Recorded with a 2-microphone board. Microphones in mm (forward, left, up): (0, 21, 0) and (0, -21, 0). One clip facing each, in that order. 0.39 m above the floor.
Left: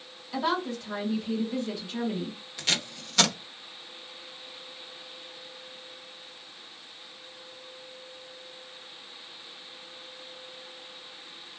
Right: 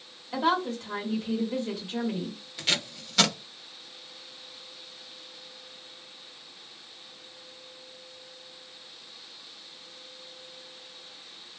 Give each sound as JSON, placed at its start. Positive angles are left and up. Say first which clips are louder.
{"t": 0.3, "sound": "a woman speaking", "louder": "right 2 dB", "side_deg": -40, "distance_m": 1.6}
{"t": 2.6, "sound": "tape being pulled", "louder": "right 1 dB", "side_deg": -10, "distance_m": 0.9}